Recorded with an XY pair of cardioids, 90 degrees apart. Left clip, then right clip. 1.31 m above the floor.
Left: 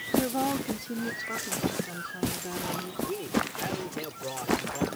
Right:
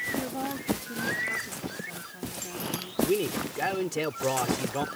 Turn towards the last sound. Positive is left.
turn(degrees=-70)